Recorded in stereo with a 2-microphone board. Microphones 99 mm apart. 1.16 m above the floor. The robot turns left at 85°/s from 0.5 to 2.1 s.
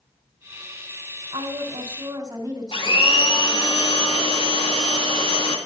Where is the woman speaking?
75° right, 4 m; by 3.7 s 145° right, 4 m.